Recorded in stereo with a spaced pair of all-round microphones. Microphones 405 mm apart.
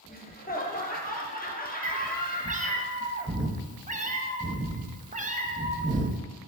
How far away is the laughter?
About 0.9 m.